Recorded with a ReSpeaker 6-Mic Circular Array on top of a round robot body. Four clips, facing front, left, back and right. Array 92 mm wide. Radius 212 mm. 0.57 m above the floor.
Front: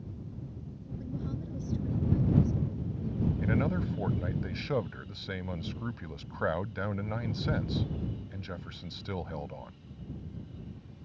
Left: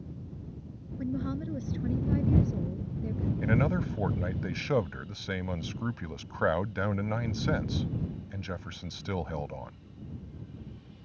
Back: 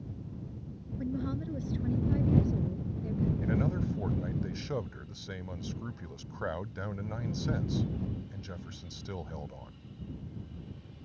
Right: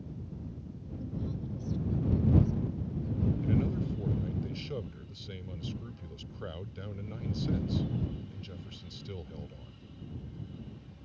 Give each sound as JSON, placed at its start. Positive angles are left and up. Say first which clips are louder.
{"t": 1.0, "sound": "a woman speaking", "louder": "left 7 dB, back 5 dB", "azimuth_deg": 115}
{"t": 3.4, "sound": "a man speaking", "louder": "left 3 dB, front 1 dB", "azimuth_deg": 75}